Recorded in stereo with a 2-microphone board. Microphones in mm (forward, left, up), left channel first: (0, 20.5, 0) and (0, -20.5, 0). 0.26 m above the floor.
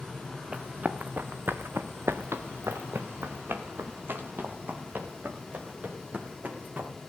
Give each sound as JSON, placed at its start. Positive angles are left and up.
{"t": 0.5, "sound": "running footsteps", "side_deg": -30, "distance_m": 1.6}